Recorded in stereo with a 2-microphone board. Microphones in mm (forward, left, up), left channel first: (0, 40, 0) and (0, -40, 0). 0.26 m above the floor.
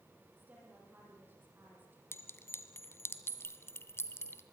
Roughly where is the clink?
Left.